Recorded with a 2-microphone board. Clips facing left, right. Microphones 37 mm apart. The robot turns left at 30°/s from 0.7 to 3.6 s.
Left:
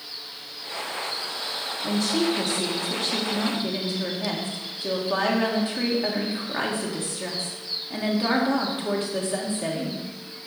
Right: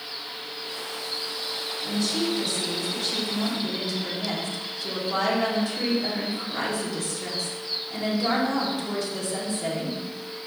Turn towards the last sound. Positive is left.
turn(degrees=35)